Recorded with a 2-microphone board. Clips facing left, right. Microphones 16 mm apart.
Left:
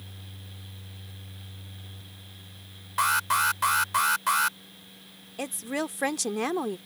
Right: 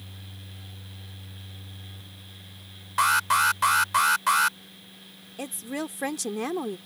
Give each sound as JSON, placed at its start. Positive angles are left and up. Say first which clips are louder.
{"t": 3.0, "sound": "an alarm", "louder": "right 3 dB", "side_deg": -10}
{"t": 5.4, "sound": "a woman speaking", "louder": "left 2 dB", "side_deg": 15}